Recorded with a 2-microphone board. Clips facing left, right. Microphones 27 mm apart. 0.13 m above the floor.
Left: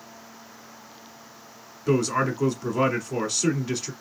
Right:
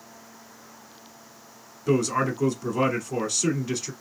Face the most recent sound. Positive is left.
turn(degrees=10)  # may be behind; listen again after turning